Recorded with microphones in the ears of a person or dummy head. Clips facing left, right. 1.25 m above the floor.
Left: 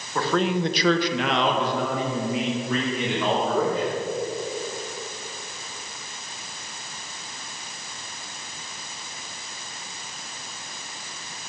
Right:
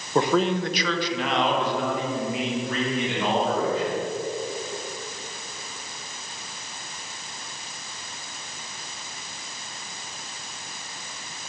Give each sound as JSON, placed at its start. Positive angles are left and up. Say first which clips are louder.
{"t": 0.1, "sound": "a man speaking", "louder": "right 2 dB", "side_deg": -25, "distance_m": 1.0}